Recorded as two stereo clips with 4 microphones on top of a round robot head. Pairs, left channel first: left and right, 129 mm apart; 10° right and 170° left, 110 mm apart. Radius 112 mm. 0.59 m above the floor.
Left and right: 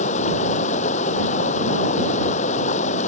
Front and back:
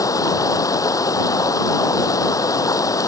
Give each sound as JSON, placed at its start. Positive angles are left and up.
{"t": 0.0, "sound": "running water", "azimuth_deg": 50}